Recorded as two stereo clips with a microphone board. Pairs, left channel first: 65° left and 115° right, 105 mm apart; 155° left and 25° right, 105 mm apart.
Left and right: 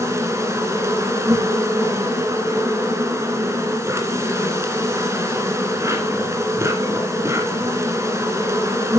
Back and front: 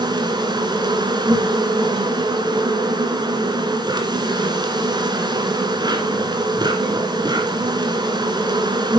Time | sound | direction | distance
0.0 | an insect | 55° right | 2 m